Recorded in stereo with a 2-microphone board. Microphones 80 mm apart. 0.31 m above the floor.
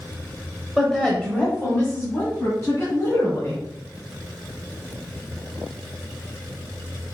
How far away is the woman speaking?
About 1.1 m.